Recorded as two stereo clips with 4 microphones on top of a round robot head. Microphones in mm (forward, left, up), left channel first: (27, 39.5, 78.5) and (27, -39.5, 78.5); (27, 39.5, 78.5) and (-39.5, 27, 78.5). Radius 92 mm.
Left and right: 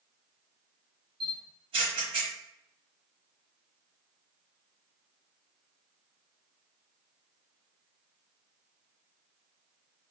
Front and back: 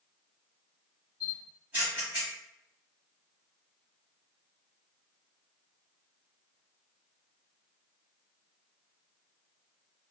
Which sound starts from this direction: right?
A camera shutter, at 1.2 s.